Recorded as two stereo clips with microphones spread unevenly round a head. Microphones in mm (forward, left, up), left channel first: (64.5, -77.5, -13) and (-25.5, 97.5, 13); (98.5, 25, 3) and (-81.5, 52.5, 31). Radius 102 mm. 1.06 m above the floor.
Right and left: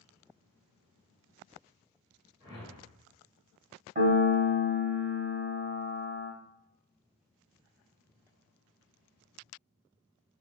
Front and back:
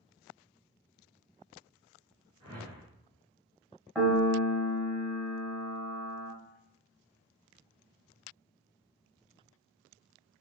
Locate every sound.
2.4 s a whoosh: straight behind, 1.1 m
4.0 s a piano: 75° left, 0.8 m